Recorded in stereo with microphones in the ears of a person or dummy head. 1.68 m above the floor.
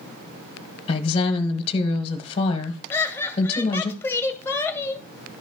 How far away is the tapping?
No tapping in this recording.